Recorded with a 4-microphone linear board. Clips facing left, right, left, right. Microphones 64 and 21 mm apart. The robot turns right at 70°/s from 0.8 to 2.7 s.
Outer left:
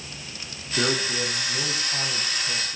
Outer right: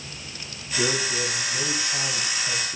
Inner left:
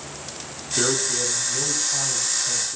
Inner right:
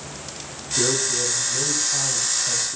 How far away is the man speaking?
About 8.5 m.